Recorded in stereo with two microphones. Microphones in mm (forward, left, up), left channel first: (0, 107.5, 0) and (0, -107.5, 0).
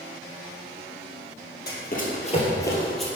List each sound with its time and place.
1.7 s running footsteps: 50° left (ahead or behind), 1.9 m; by 3.1 s centre (ahead or behind), 1.8 m